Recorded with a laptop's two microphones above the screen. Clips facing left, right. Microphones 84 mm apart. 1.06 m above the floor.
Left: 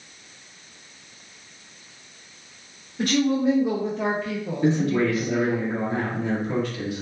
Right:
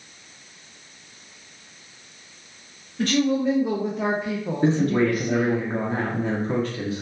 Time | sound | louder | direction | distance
3.0 | a woman speaking | even | 10° left (ahead or behind) | 1.0 m
4.6 | a man speaking | right 1 dB | 35° right (ahead or behind) | 0.7 m